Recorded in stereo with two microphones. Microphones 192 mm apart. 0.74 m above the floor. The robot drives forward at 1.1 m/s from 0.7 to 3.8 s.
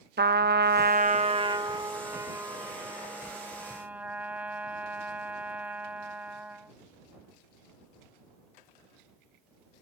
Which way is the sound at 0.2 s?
60° right (ahead or behind).